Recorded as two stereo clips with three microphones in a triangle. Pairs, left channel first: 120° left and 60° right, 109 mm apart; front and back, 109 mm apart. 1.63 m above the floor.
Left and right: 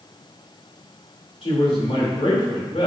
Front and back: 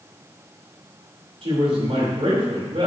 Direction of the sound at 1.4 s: 150° left.